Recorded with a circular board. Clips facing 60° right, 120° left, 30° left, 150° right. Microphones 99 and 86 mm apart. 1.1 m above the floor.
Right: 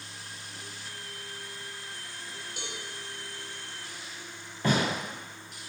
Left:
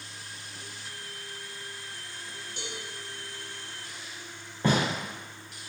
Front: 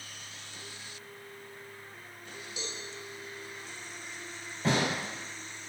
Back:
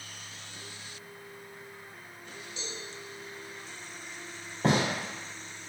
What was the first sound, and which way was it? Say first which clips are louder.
A cowbell: left 2 dB, front 1 dB; 5° right.